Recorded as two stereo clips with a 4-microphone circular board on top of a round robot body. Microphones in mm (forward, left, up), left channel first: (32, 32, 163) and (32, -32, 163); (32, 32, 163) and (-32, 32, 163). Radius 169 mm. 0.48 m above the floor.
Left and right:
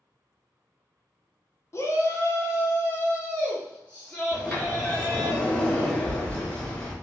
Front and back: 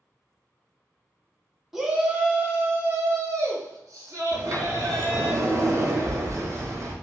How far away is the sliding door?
About 1.1 m.